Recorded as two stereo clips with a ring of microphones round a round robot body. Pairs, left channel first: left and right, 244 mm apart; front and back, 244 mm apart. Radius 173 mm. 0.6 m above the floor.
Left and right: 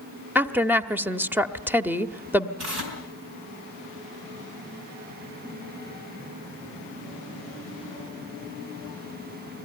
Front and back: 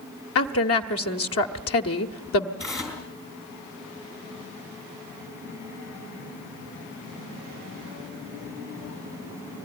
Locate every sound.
0.3 s a woman speaking: 10° right, 1.1 m
2.6 s tearing paper: 80° right, 5.5 m